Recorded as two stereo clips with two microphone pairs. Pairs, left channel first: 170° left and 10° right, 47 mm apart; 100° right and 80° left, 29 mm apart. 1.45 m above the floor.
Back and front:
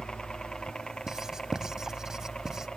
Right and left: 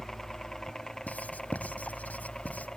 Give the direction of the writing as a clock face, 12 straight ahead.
3 o'clock.